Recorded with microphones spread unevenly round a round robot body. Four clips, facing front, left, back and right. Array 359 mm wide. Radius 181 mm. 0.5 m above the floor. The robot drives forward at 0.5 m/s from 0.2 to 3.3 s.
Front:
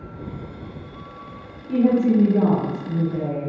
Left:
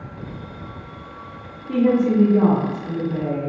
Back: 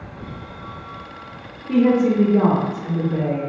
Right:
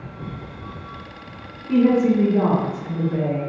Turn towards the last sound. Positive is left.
turn(degrees=180)